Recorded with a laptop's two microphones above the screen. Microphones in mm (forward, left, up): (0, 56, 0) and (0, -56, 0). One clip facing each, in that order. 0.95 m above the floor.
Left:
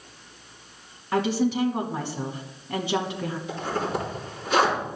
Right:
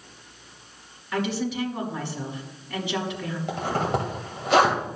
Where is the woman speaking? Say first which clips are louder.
Left 4 dB; 35° left (ahead or behind), 1.1 m.